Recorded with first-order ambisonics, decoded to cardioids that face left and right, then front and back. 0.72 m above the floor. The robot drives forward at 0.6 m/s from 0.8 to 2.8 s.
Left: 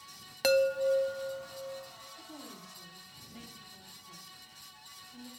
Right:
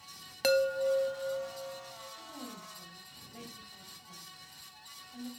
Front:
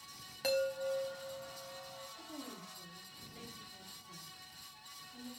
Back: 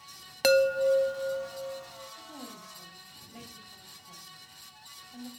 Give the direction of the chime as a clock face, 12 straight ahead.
6 o'clock.